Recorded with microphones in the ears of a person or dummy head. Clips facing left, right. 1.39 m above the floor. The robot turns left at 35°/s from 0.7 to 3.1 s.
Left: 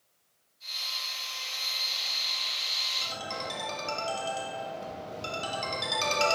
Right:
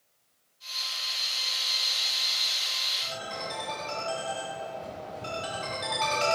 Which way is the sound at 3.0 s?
65° left (ahead or behind).